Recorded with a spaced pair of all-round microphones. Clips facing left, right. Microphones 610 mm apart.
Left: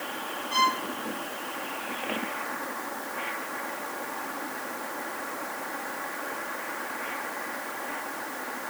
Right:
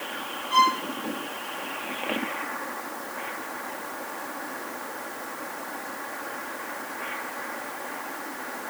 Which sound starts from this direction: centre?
A violin, at 0.5 s.